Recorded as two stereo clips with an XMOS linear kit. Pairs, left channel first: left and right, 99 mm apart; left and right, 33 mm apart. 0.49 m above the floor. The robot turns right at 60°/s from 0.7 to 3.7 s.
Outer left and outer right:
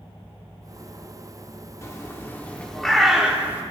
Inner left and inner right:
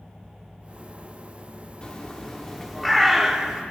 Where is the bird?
30° left (ahead or behind), 0.9 m; by 3.6 s 20° right (ahead or behind), 0.9 m.